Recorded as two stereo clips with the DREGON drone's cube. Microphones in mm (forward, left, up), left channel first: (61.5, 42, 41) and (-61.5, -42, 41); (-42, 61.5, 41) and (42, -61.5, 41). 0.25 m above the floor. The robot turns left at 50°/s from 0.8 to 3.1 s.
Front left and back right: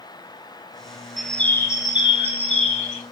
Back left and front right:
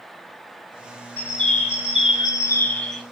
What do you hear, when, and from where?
1.2 s a bird: 125° left, 1.0 m; by 3.0 s 35° left, 1.0 m